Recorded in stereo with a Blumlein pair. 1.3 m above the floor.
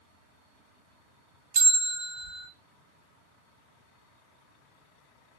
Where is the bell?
45° right, 1.5 m.